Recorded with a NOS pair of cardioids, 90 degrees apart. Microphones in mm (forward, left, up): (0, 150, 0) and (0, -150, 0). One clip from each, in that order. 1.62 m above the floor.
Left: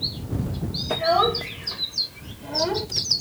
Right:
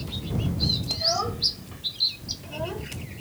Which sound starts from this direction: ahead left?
A child speaking, at 0.9 s.